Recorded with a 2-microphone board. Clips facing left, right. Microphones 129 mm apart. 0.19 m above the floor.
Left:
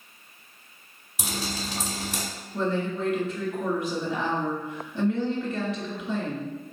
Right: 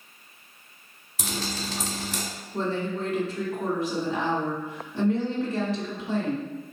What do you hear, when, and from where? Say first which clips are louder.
1.2 s dripping: even; 15° left (ahead or behind), 1.3 m
2.5 s a woman speaking: left 1 dB; 40° right (ahead or behind), 1.6 m